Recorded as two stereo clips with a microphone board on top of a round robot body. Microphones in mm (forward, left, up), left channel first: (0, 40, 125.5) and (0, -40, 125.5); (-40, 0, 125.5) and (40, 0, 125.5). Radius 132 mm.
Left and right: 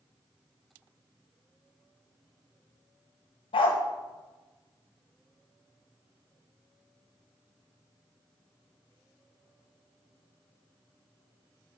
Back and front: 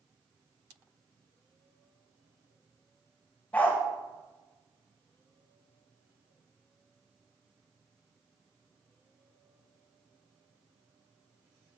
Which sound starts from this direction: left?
A dog barking, at 3.5 s.